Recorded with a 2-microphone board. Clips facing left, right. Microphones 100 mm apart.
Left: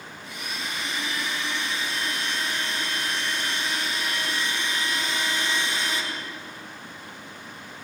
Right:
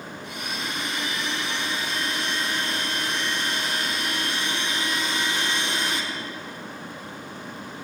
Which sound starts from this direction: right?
A blender, at 0.2 s.